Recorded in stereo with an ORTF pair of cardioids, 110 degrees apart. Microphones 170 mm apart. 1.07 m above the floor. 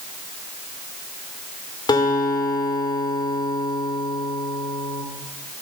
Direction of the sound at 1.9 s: 25° left.